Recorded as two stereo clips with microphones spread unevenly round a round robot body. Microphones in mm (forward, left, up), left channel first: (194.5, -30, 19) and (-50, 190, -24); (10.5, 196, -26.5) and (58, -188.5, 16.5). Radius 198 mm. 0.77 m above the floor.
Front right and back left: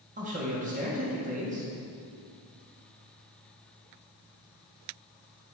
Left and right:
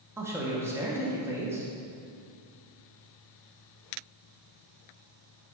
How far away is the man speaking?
About 1.3 m.